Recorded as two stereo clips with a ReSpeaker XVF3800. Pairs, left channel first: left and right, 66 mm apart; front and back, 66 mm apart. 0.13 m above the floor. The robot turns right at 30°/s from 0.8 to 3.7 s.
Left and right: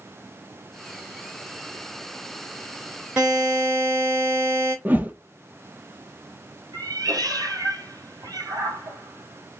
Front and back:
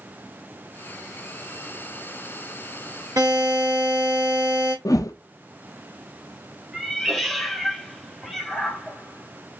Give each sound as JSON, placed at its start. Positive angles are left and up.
{"t": 3.2, "sound": "a buzzer", "azimuth_deg": -170, "distance_m": 2.5}
{"t": 4.8, "sound": "a whoosh", "azimuth_deg": -25, "distance_m": 0.7}
{"t": 6.7, "sound": "a cat meowing", "azimuth_deg": -90, "distance_m": 1.2}